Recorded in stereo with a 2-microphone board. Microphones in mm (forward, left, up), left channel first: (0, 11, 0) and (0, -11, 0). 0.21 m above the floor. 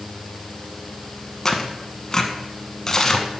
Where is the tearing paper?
25° left (ahead or behind), 0.7 m.